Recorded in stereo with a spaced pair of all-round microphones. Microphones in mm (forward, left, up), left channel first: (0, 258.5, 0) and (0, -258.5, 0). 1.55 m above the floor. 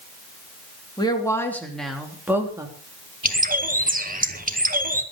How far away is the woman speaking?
About 3.5 m.